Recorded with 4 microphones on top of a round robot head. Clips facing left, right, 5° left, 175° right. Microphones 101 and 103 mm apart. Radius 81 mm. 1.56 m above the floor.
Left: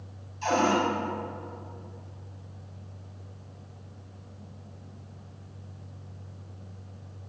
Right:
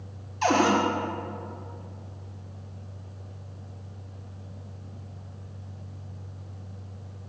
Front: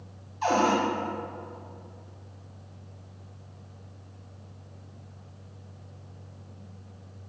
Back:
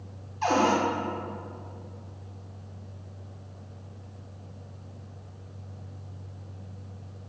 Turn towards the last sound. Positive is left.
turn(degrees=-80)